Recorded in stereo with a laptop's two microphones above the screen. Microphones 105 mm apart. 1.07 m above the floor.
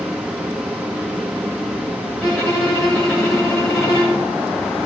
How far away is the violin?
About 6 m.